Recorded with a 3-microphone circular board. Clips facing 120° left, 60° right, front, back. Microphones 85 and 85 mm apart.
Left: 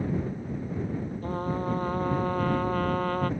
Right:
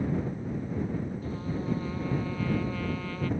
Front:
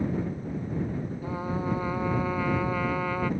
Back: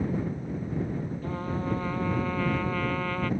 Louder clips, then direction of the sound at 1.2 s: Left 4 dB, front 2 dB; 80° left.